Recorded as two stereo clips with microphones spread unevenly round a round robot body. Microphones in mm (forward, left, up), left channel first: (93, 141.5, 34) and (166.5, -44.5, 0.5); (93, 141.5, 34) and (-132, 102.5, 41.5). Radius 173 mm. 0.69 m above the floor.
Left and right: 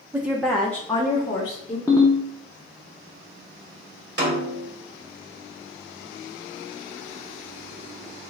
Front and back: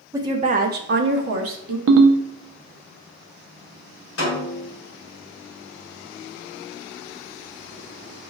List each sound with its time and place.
0.1 s a woman speaking: 105° right, 0.5 m; by 1.8 s 175° right, 1.0 m
1.9 s a ringtone: 165° right, 0.6 m
4.2 s a snare drum: 35° right, 2 m